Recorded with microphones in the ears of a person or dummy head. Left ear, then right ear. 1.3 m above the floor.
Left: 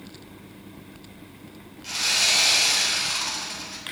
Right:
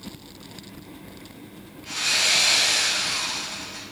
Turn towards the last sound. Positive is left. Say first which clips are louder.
# even
turn(degrees=75)  # may be behind; listen again after turning